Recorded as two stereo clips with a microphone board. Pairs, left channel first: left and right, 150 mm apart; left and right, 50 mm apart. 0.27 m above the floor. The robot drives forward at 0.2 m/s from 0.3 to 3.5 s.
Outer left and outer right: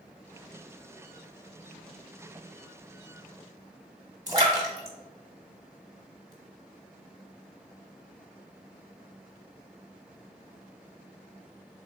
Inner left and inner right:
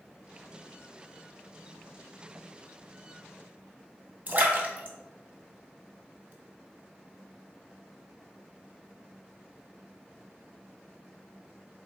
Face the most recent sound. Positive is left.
turn(degrees=-25)  # may be behind; listen again after turning